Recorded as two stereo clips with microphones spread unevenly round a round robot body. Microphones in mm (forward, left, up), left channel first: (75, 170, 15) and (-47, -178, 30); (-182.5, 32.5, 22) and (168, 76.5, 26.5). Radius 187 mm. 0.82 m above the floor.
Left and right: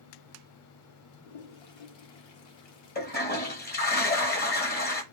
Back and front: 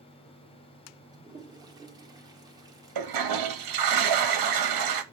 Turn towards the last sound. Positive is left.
turn(degrees=10)